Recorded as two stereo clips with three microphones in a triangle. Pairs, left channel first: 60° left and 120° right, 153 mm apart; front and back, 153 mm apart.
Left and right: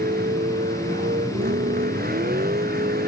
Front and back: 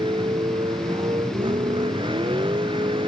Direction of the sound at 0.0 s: 125° right.